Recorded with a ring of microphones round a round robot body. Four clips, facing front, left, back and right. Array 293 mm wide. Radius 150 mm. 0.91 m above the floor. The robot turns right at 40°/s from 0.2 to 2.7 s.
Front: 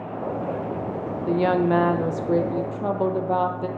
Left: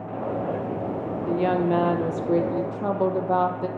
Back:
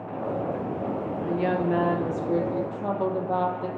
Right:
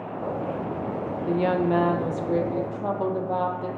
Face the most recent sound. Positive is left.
turn(degrees=50)